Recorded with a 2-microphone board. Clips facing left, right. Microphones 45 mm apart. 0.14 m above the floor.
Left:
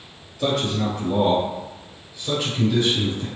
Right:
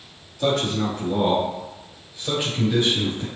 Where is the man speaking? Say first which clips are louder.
Right 1 dB; 10° left (ahead or behind), 2 m; by 3.3 s 30° right (ahead or behind), 2 m.